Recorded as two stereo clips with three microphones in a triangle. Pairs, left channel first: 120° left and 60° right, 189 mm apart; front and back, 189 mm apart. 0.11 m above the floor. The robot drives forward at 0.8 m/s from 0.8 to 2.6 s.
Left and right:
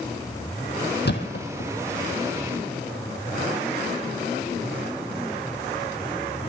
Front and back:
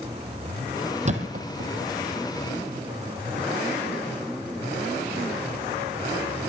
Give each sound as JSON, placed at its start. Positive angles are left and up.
{"t": 1.1, "sound": "a thud", "azimuth_deg": 135, "distance_m": 1.7}